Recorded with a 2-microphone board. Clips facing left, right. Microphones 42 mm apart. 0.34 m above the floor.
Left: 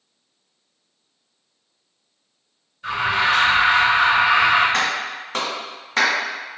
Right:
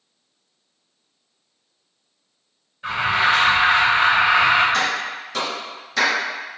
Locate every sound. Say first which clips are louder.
2.8 s an alarm: right 1 dB; 30° right (ahead or behind), 1.7 m
4.7 s a clap: even; 45° left (ahead or behind), 1.3 m